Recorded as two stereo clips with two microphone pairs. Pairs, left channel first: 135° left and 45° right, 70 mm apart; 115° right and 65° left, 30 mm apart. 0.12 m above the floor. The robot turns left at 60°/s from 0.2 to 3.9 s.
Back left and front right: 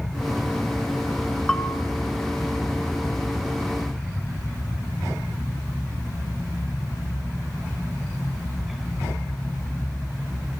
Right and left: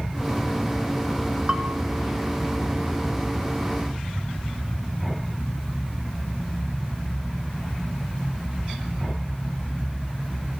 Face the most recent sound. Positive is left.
turn(degrees=-75)